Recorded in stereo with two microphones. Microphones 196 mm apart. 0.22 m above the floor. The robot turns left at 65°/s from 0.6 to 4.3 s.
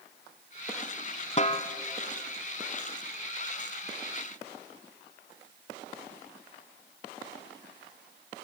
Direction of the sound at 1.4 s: 40° left (ahead or behind).